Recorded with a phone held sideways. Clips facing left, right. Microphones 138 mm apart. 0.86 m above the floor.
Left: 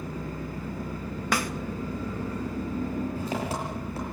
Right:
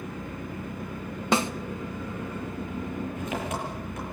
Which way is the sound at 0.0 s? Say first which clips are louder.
Left 1 dB; 35° left (ahead or behind).